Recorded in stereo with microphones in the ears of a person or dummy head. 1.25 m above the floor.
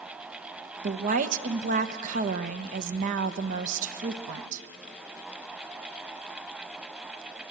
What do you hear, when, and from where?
0.8 s a woman speaking: 45° right (ahead or behind), 1.0 m